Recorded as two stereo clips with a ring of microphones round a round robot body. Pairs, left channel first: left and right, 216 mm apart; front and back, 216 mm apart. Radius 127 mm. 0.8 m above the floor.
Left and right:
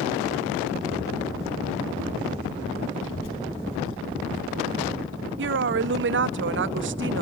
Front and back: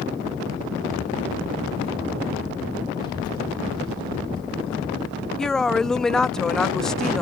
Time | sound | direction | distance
3.0 | a child speaking | 75° left | 7 m
5.4 | a woman speaking | 85° right | 0.6 m